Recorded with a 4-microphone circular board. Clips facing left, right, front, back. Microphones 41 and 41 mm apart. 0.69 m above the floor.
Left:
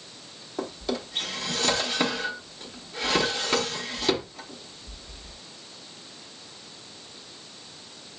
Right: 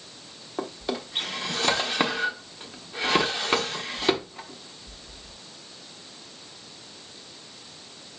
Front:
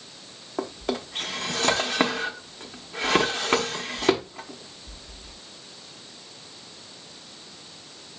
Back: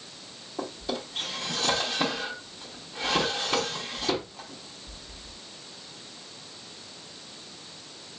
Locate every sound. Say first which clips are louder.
0.6 s a drawer: even, front 4 dB; 25° right, 0.9 m